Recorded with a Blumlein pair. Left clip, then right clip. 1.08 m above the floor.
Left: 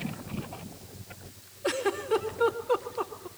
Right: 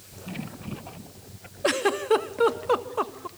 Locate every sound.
1.6 s a giggle: 30° right, 1.3 m